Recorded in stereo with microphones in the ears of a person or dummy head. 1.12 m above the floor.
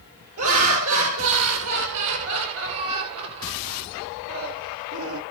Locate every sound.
0.4 s laughter: 75° right (ahead or behind), 5 m